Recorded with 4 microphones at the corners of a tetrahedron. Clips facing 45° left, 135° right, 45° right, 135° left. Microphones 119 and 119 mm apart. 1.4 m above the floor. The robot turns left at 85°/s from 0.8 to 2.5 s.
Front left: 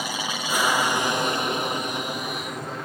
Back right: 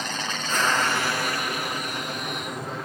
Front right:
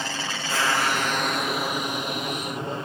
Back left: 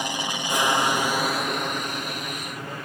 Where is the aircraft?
105° left; by 2.9 s 45° right.